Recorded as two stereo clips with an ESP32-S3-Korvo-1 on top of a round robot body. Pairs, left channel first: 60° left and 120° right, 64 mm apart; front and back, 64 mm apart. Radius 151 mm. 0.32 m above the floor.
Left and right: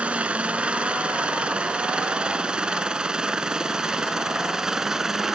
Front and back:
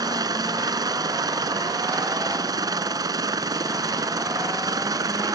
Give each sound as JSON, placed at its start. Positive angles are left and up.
{"t": 0.0, "sound": "a helicopter", "azimuth_deg": 170}